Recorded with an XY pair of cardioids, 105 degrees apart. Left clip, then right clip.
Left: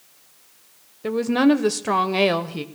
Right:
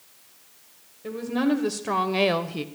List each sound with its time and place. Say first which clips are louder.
1.0 s a woman speaking: left 7 dB; 70° left, 1.0 m; by 2.6 s 5° left, 1.0 m